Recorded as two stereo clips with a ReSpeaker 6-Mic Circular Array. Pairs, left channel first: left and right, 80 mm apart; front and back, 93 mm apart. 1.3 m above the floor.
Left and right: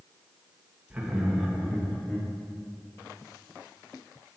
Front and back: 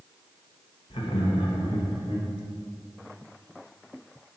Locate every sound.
0.9 s laughter: 15° right, 1.4 m; by 2.3 s 15° left, 2 m